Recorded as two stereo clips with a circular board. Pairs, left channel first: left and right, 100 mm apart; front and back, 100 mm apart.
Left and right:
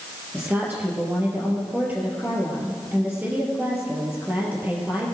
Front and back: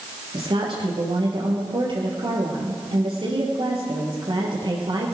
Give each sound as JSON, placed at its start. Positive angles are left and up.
{"t": 0.3, "sound": "a woman speaking", "azimuth_deg": -160, "distance_m": 3.0}